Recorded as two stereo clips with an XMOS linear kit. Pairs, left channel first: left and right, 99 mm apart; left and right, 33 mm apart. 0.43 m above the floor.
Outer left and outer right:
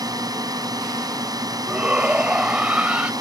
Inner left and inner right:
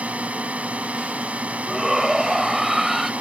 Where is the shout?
10° right (ahead or behind).